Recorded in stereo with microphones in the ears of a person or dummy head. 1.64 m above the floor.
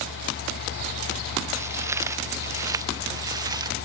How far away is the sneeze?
I don't hear a sneeze.